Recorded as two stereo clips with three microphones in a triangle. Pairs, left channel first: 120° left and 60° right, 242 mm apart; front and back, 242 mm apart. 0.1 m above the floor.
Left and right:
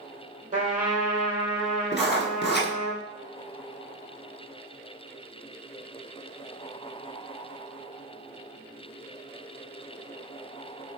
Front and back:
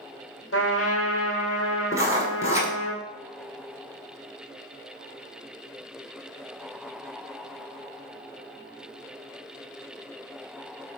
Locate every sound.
0.5 s a trumpet: straight ahead, 1.1 m
1.9 s writing: 110° left, 0.8 m